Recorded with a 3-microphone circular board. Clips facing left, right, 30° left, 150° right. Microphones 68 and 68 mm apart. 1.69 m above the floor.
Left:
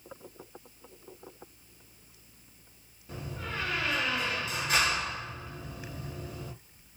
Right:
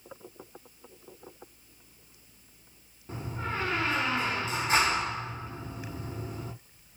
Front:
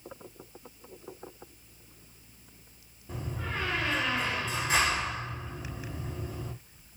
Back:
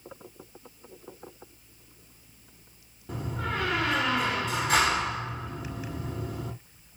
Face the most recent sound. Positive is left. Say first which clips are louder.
# right 4 dB, back 4 dB
turn(degrees=-145)